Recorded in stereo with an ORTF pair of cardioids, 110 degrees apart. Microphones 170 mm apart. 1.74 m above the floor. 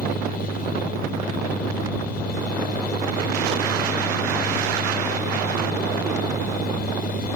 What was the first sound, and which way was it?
A fan, 65° left.